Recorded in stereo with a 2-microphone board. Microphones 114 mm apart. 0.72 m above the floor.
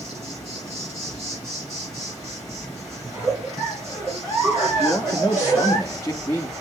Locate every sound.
0.0 s an insect: 25° right (ahead or behind), 5 m
3.0 s a giggle: 20° right (ahead or behind), 5 m
4.8 s a man speaking: 20° left (ahead or behind), 0.6 m